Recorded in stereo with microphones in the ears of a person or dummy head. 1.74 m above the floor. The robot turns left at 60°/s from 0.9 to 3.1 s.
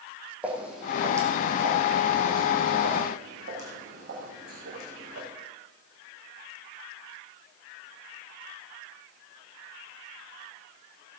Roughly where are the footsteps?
Centre.